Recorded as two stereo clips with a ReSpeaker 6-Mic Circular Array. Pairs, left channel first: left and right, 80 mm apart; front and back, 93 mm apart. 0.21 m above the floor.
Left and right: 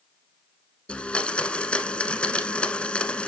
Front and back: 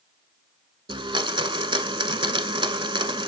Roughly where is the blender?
Behind.